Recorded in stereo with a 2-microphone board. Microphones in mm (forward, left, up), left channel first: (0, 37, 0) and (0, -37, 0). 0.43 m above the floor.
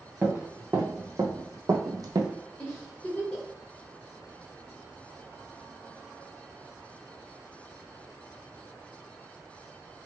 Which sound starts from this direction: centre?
A giggle, at 2.6 s.